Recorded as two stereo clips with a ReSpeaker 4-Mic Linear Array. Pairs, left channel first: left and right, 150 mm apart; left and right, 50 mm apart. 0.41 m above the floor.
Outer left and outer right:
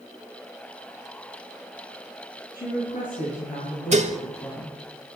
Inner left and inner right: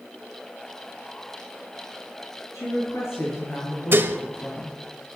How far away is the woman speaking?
About 6.5 m.